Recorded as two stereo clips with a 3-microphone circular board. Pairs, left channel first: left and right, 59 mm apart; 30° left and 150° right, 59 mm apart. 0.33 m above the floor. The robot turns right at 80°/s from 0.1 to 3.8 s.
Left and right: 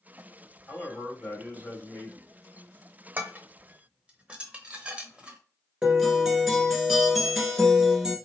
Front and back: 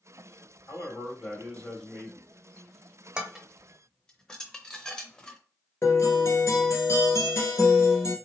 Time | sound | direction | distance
0.7 | a man speaking | 25° left | 1.9 m
3.2 | dishes clattering | 90° right | 0.7 m
5.8 | a guitar | 10° right | 1.3 m